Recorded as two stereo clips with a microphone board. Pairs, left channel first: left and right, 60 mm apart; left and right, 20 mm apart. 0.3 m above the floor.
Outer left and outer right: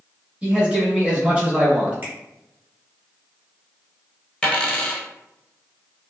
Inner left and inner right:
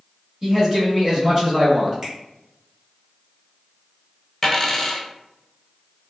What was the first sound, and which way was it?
A man speaking, 20° right (ahead or behind).